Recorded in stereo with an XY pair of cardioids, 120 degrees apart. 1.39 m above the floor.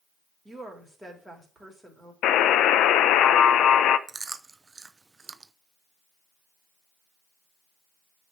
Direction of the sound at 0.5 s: Straight ahead.